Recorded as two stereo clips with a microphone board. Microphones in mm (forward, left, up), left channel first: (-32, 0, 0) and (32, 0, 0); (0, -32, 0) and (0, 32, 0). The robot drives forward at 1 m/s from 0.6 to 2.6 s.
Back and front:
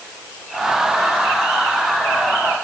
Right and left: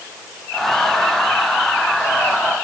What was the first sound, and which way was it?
Only background noise.